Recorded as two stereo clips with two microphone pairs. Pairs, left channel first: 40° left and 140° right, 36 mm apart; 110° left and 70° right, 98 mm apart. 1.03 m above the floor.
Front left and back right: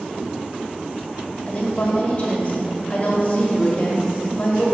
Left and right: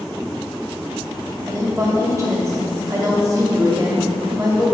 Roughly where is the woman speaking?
Ahead.